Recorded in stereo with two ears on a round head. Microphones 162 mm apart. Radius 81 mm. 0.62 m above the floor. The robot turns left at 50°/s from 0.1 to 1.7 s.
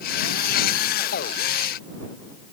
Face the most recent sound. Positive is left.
No sound to turn to.